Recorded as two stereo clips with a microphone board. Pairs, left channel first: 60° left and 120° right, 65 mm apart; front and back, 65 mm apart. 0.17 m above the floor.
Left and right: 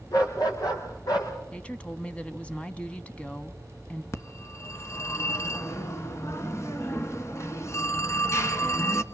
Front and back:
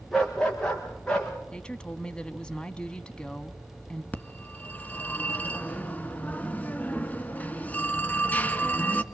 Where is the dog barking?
80° left, 6.5 m; by 1.3 s 75° left, 7.5 m.